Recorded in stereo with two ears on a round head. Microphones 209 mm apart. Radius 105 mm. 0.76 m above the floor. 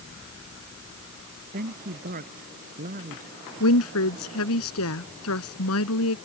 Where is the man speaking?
40° right (ahead or behind).